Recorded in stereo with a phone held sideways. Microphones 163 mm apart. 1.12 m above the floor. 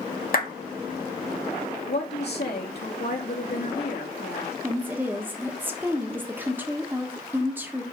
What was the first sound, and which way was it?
A clap, 60° left (ahead or behind).